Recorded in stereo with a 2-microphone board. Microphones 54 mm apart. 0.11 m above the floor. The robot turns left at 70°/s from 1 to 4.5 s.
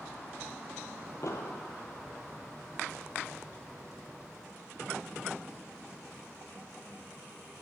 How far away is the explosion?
About 0.7 m.